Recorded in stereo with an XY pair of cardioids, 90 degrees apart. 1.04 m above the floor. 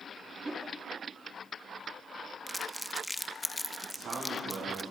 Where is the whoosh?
25° right, 1.7 m.